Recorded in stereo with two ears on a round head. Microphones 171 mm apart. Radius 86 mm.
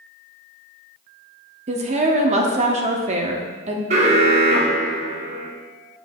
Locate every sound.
1.7 s a woman speaking: 35° right (ahead or behind), 0.8 m
3.9 s an alarm: 35° right (ahead or behind), 0.9 m